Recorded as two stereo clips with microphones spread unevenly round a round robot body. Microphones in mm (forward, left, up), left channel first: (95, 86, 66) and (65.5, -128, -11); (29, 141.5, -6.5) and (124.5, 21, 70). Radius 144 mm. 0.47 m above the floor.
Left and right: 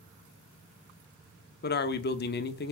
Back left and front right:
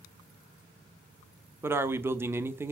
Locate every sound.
1.6 s a man speaking: 75° left, 0.8 m